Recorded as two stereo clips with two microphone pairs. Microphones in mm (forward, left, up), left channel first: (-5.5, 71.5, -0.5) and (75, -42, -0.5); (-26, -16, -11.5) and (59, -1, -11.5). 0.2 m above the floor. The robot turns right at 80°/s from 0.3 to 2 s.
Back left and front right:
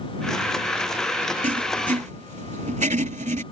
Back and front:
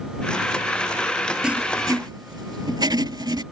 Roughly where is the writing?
Right.